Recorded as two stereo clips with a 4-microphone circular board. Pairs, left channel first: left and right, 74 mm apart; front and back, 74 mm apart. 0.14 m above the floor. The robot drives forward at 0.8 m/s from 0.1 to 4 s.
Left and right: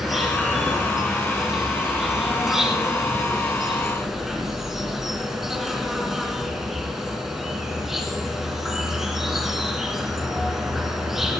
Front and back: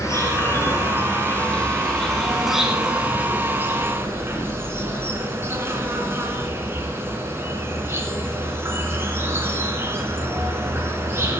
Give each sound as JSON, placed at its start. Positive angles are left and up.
{"t": 0.0, "sound": "an insect", "azimuth_deg": -5, "distance_m": 2.5}